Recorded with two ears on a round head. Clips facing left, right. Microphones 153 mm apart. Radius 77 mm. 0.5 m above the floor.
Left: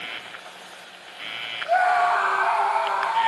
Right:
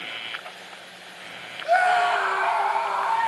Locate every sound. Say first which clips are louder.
1.6 s a scream: even; 40° right (ahead or behind), 0.9 m; by 3.3 s 10° left (ahead or behind), 1.6 m